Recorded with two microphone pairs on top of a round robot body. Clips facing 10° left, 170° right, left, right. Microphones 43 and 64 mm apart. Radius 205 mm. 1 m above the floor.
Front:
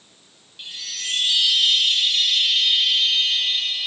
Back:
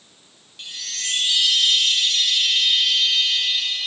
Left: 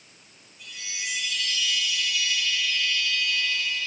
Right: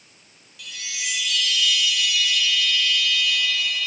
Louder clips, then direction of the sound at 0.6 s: Back 1 dB, right 3 dB; 75° right.